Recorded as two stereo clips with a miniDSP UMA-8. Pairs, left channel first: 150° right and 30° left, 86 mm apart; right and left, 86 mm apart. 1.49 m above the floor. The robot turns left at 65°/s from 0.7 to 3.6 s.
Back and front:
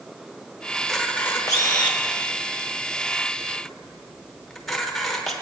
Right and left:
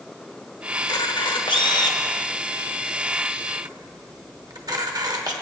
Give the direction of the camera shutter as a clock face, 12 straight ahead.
2 o'clock.